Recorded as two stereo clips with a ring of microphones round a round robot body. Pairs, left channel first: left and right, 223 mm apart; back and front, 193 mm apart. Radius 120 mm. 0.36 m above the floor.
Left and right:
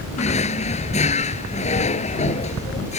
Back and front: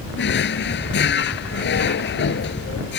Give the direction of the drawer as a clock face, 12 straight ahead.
7 o'clock.